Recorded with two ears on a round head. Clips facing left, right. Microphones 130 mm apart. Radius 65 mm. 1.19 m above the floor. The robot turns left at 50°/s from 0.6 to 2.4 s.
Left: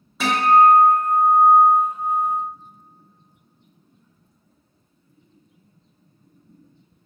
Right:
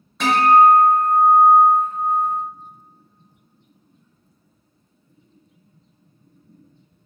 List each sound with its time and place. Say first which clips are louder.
0.2 s a guitar: right 2 dB; 5° left (ahead or behind), 0.6 m; by 2.3 s 25° left (ahead or behind), 0.6 m